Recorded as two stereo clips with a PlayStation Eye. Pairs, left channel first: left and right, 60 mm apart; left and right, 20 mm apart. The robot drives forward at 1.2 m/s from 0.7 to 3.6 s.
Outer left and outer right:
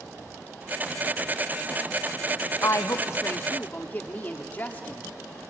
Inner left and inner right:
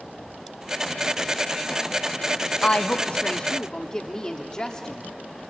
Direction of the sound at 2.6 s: 55° left (ahead or behind).